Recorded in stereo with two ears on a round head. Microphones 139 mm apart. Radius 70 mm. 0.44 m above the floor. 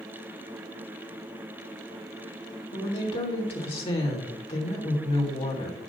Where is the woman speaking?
40° left (ahead or behind), 1.7 m.